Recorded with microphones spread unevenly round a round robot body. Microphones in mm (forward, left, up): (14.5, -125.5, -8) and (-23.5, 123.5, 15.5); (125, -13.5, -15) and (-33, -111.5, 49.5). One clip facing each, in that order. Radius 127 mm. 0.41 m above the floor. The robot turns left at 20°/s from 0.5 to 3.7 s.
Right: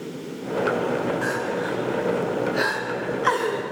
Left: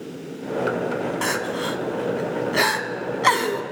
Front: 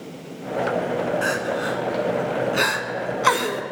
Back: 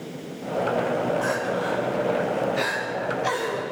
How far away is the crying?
About 1.1 m.